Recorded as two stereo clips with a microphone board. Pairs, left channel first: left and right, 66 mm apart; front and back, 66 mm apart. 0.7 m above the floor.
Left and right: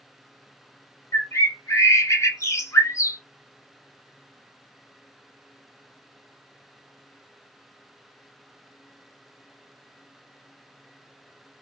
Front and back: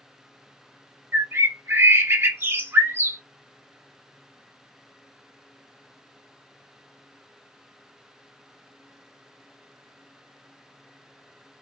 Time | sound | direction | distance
1.1 | a bird | 130° left | 0.7 m